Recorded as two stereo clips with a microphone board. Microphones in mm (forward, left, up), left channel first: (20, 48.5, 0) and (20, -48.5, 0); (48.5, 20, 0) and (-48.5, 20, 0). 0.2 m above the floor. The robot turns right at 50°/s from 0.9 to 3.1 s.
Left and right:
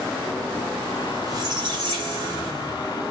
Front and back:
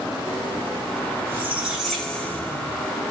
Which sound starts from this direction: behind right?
A squeak, at 1.3 s.